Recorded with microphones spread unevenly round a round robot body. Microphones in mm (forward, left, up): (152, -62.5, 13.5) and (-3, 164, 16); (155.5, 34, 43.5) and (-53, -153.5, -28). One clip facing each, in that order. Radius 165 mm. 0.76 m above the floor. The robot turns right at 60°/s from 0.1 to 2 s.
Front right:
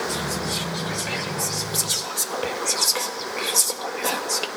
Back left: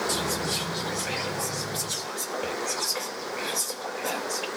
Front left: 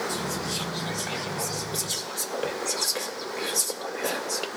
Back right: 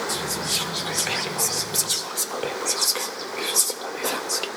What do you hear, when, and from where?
0.1 s whispering: 175° left, 0.6 m; by 4.5 s 70° right, 0.6 m